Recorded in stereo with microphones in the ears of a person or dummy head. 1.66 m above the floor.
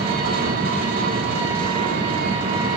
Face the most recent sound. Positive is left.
turn(degrees=-50)  # may be behind; listen again after turning